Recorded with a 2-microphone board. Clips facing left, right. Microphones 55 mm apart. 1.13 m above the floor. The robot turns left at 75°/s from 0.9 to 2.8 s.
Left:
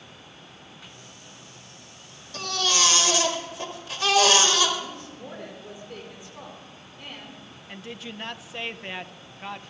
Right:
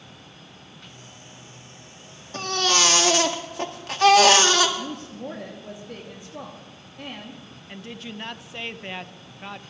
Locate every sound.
2.3 s a baby crying: 35° right, 1.7 m; by 4.7 s 70° right, 1.7 m
4.8 s a woman speaking: 65° right (ahead or behind), 2.5 m
7.7 s a woman speaking: centre (ahead or behind), 0.5 m